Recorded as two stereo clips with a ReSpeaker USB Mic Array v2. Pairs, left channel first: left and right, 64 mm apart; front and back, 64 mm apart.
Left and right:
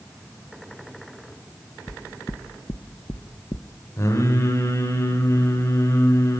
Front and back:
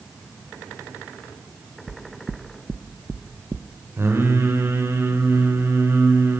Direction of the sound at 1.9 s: 120° left.